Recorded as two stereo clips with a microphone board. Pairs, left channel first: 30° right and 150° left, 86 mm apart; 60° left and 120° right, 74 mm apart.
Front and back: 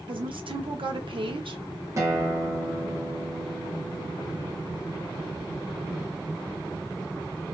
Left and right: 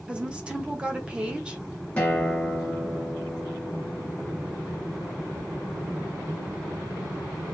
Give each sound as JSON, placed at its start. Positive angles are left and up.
{"t": 0.1, "sound": "a woman speaking", "azimuth_deg": 165, "distance_m": 0.6}
{"t": 2.0, "sound": "a guitar", "azimuth_deg": 125, "distance_m": 0.9}